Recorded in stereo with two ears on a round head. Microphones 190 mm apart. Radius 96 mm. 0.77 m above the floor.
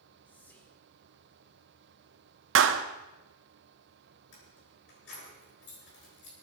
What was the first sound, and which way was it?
Whispering, 10° left (ahead or behind).